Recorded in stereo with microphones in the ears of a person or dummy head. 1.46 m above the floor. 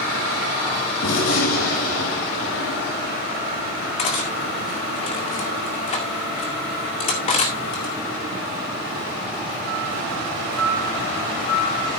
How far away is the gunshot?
About 5.5 m.